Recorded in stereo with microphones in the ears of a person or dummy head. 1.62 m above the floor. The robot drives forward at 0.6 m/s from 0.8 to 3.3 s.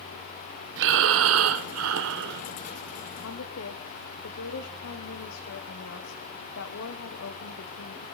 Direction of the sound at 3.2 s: 85° left.